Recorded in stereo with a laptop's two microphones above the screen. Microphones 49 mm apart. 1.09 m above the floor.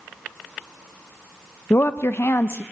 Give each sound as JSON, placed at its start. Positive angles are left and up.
{"t": 1.7, "sound": "a woman speaking", "side_deg": 55, "distance_m": 0.6}